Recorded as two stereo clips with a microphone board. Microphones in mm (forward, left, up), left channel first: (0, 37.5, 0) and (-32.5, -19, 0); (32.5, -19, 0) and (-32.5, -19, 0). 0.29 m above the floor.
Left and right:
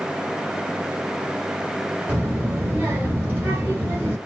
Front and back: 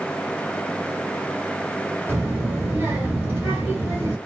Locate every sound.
2.1 s a child speaking: 160° right, 1.0 m